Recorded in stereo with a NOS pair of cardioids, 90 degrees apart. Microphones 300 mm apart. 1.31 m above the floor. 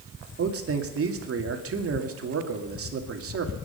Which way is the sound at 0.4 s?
45° right.